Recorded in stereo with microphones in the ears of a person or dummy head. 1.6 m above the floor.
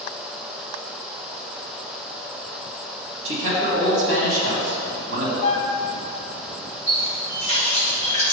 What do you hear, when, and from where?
3.2 s a man speaking: 80° right, 2.0 m
5.4 s a flute: 40° left (ahead or behind), 0.8 m
6.9 s a running tap: 30° right (ahead or behind), 1.0 m